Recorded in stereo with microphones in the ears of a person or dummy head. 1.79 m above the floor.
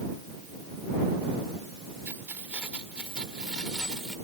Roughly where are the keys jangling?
Centre.